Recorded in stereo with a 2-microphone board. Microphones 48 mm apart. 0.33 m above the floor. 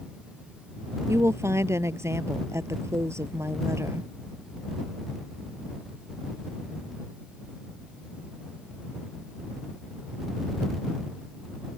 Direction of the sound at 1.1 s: 80° right.